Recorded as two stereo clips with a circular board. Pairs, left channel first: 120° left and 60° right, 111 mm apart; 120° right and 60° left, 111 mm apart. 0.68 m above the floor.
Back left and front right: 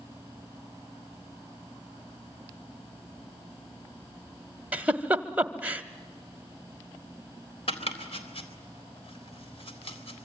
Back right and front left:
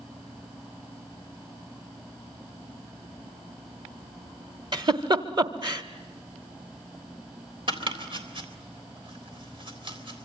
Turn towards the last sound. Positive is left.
turn(degrees=95)